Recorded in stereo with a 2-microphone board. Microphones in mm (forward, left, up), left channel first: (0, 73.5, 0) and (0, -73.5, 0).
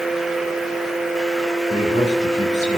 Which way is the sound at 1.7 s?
55° left (ahead or behind).